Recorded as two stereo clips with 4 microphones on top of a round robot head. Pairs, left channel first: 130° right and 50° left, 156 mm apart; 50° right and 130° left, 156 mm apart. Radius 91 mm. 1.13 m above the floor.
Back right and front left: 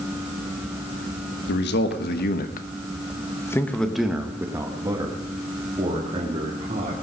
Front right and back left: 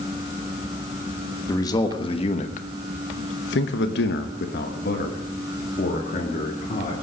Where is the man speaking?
120° right, 1.4 m; by 6.9 s straight ahead, 2.5 m.